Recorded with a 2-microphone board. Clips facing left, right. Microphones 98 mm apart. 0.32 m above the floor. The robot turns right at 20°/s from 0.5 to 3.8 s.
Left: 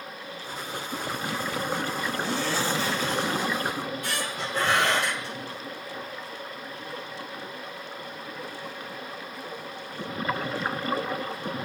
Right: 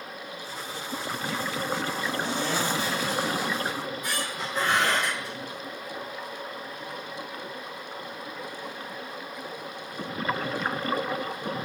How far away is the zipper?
About 1.4 m.